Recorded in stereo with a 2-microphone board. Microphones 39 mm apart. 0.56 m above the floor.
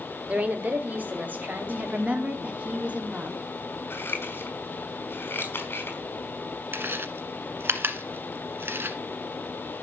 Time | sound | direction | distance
0.3 | a woman speaking | 30° right (ahead or behind) | 1.0 m
1.7 | a woman speaking | 30° right (ahead or behind) | 1.4 m
3.9 | scissors | 60° left (ahead or behind) | 3.5 m
6.7 | chewing | 60° right (ahead or behind) | 1.3 m